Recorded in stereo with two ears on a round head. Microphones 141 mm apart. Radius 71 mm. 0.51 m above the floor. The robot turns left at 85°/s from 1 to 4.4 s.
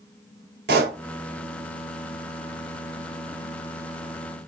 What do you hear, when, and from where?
0.7 s a pop: 65° right (ahead or behind), 2.5 m